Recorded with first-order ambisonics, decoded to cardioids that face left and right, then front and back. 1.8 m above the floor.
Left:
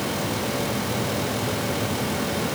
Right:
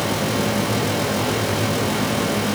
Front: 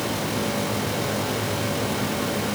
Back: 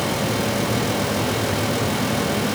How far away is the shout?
I don't hear a shout.